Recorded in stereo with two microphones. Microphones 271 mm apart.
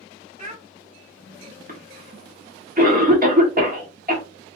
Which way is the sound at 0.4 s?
25° right (ahead or behind).